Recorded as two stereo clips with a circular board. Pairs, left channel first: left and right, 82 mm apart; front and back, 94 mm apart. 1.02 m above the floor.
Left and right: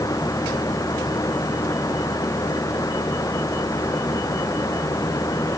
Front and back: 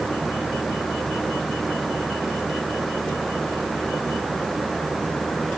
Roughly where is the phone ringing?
No phone ringing in this recording.